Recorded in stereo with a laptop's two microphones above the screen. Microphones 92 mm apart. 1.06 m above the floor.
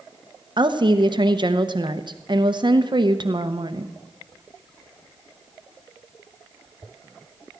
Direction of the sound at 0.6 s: 50° right (ahead or behind).